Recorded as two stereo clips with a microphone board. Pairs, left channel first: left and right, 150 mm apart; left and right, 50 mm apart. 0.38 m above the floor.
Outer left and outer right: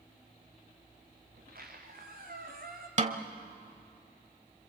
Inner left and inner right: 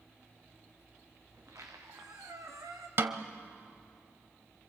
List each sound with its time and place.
1.3 s a squeak: 80° right, 3 m
3.0 s a snare drum: 50° right (ahead or behind), 1.0 m